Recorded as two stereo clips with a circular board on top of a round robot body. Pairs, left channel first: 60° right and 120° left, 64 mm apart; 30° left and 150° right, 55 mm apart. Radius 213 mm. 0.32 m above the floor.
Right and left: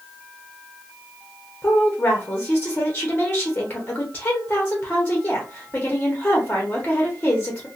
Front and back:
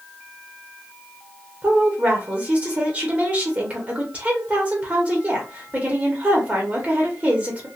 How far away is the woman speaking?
About 1.1 m.